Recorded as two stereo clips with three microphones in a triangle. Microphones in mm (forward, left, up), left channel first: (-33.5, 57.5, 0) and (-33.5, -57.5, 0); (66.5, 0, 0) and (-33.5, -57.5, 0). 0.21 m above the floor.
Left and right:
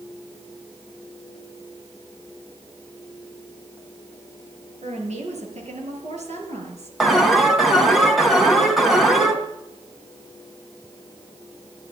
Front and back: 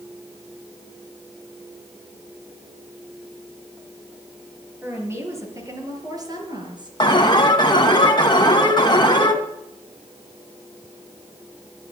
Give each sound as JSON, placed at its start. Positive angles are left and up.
{"t": 4.8, "sound": "a woman speaking", "azimuth_deg": -80, "distance_m": 5.0}
{"t": 7.0, "sound": "an alarm", "azimuth_deg": 0, "distance_m": 2.0}